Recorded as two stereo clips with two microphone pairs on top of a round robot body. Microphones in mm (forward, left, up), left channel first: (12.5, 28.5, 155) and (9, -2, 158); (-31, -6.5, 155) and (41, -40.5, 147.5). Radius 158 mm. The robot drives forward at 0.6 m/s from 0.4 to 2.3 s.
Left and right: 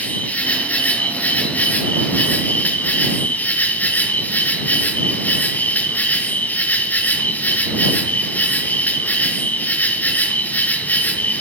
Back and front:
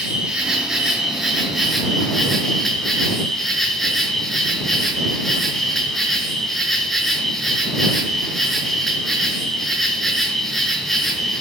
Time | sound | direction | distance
0.0 | an insect | 55° left | 5.5 m